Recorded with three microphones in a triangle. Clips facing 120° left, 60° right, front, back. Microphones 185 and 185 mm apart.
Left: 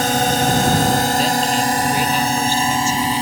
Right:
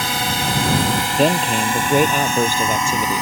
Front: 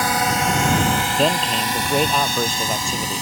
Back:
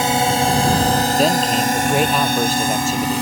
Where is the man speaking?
95° right.